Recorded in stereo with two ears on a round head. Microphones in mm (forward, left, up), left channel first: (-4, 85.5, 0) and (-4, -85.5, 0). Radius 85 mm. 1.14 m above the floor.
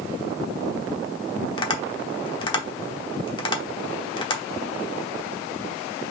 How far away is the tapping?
About 1.0 m.